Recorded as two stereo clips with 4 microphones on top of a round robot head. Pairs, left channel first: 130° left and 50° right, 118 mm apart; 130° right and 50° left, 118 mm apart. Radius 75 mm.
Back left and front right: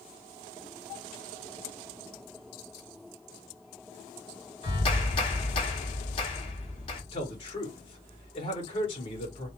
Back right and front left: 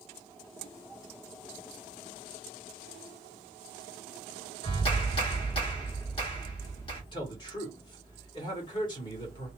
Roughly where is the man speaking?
Behind.